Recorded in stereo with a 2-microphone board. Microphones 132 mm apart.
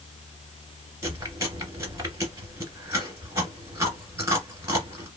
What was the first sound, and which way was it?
Chewing, 20° right (ahead or behind).